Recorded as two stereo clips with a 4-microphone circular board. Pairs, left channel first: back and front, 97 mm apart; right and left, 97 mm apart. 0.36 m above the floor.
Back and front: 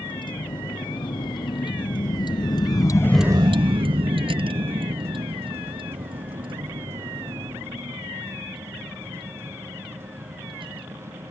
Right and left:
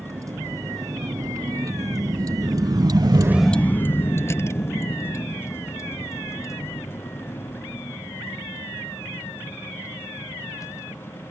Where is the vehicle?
145° left; by 11.3 s 30° right.